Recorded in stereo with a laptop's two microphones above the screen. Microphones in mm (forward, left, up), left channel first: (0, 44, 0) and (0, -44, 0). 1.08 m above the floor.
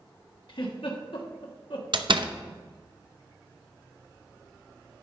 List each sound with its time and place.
0.5 s a giggle: 70° left (ahead or behind), 1.3 m
1.9 s a door slam: 65° right (ahead or behind), 0.6 m